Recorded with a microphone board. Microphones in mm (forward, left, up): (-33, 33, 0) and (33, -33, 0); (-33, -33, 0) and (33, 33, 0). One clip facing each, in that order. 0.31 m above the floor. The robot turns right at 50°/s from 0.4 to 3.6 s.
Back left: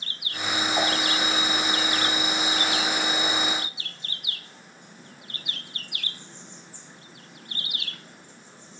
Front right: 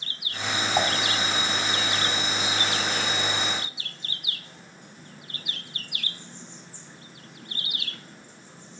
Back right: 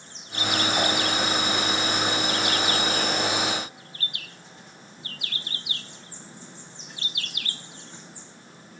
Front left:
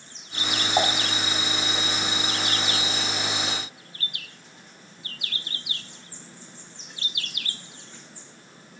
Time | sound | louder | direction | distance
0.8 | dishes clattering | front right 2 dB, front left 5 dB | 10° left | 1.5 m